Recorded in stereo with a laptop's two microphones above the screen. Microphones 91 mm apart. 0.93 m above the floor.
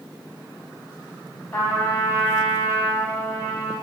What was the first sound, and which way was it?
A trumpet, 30° left (ahead or behind).